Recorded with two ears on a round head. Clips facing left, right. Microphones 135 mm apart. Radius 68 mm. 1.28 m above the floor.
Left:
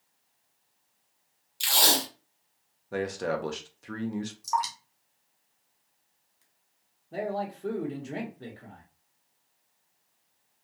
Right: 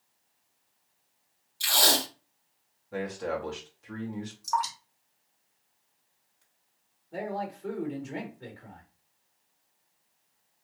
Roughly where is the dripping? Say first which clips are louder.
Right 1 dB; centre.